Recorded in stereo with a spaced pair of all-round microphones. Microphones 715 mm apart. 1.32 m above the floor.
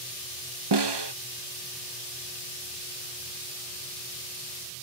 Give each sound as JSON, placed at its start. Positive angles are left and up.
{"t": 0.7, "sound": "a snare drum", "side_deg": -40}